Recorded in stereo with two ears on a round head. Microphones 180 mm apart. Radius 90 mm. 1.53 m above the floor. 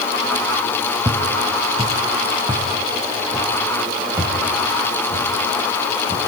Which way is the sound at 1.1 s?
15° right (ahead or behind).